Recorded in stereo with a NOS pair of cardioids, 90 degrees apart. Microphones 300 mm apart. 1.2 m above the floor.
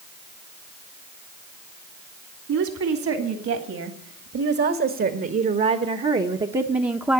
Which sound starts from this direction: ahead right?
A woman speaking, at 2.5 s.